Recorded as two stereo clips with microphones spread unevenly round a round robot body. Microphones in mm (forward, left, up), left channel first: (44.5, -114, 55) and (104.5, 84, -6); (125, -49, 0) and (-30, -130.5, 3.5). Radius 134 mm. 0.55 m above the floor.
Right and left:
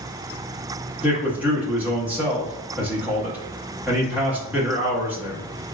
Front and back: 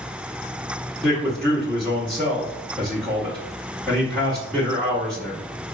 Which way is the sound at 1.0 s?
110° left.